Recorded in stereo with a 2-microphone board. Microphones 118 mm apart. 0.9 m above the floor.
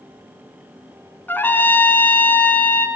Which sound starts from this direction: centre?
A trumpet, at 1.3 s.